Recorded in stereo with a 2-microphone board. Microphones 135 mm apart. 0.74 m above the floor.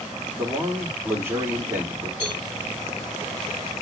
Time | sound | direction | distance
0.3 | a man speaking | 15° right (ahead or behind) | 1.7 m
2.2 | a cowbell | 40° left (ahead or behind) | 4 m